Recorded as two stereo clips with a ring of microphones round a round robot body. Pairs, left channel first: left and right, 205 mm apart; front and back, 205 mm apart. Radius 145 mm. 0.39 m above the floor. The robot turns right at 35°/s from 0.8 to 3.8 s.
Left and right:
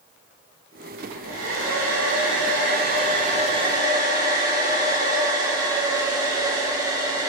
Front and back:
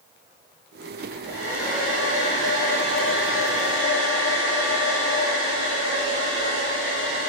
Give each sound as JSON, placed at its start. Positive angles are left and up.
{"t": 1.0, "sound": "a hair dryer", "azimuth_deg": -115, "distance_m": 1.0}